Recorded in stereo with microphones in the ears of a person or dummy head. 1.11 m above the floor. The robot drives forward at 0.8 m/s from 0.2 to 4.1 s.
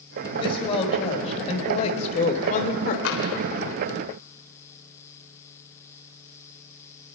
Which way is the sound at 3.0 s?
75° left (ahead or behind).